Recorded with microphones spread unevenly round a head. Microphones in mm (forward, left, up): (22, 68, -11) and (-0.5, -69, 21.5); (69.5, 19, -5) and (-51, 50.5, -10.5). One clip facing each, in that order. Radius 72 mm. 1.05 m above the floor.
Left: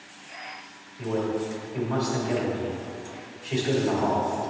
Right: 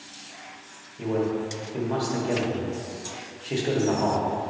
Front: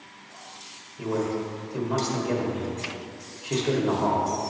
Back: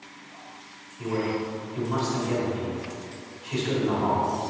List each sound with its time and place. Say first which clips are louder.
1.0 s a man speaking: right 1 dB, even; 45° right, 1.6 m